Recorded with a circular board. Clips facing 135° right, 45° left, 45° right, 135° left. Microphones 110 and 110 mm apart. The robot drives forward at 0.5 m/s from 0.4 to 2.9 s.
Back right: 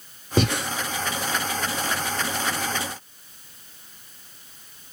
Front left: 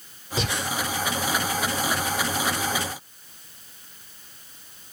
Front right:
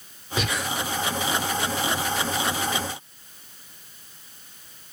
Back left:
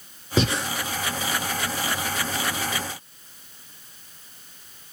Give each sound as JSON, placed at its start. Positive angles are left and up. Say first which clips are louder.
{"t": 0.4, "sound": "breathing", "louder": "back right 6 dB, back left 5 dB", "azimuth_deg": -165, "distance_m": 1.1}